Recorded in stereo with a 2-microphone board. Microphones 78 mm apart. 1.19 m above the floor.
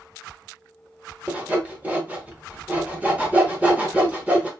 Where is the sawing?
20° right (ahead or behind), 0.7 m.